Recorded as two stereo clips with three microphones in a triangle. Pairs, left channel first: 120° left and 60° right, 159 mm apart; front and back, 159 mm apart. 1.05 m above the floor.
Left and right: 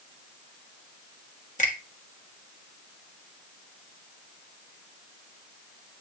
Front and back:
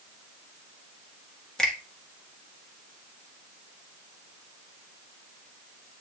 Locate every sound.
1.6 s a finger snap: 85° left, 1.7 m